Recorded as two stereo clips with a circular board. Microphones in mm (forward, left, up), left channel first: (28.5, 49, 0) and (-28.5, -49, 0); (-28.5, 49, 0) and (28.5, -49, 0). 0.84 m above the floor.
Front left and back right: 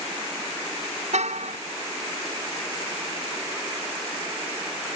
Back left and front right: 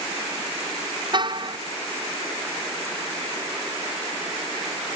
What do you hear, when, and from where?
1.1 s a car horn: 105° right